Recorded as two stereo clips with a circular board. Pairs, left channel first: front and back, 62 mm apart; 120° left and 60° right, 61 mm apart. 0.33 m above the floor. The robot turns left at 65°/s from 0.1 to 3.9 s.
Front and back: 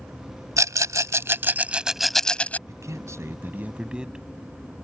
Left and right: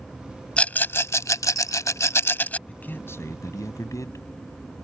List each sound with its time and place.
0.6 s a rattle: 170° right; by 2.6 s 55° left
2.7 s a man speaking: 175° right; by 4.2 s 110° left